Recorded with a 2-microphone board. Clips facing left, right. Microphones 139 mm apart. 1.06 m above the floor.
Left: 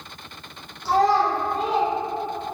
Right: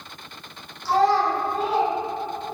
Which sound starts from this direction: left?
A child speaking, at 0.8 s.